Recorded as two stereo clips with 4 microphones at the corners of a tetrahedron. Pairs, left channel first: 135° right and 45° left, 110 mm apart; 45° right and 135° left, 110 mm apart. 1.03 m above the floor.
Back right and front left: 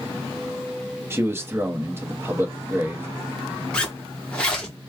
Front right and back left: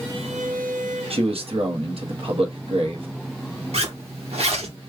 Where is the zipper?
145° left, 1.0 m.